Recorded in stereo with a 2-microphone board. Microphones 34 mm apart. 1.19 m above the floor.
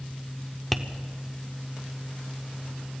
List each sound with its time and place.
0.7 s tapping: centre (ahead or behind), 0.9 m